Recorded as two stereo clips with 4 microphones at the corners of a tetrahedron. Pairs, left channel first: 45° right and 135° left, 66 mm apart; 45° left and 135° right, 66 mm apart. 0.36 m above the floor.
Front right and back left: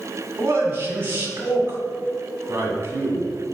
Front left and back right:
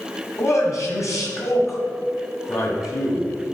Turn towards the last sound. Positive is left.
turn(degrees=80)